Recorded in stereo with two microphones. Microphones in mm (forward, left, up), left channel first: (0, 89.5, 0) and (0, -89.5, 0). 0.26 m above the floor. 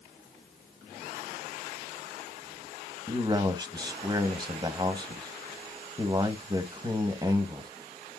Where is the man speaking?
25° right (ahead or behind), 1.4 m.